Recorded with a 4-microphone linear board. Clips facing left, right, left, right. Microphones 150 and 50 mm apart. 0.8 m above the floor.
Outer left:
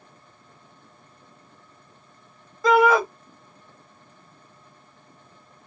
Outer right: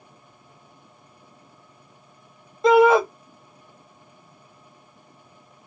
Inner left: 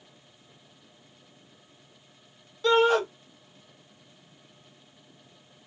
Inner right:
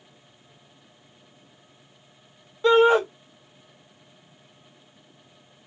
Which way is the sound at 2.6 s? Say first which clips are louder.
Outer right 3 dB, inner right 4 dB; 25° right (ahead or behind).